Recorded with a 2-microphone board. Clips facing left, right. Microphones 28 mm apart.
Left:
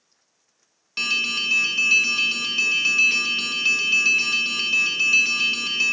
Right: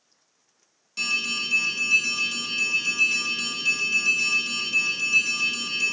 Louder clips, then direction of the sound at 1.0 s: Left 3 dB; 40° left (ahead or behind).